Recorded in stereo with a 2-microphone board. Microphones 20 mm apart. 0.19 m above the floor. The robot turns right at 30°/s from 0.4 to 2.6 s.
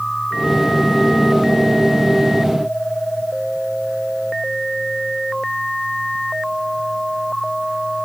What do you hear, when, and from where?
Only background noise.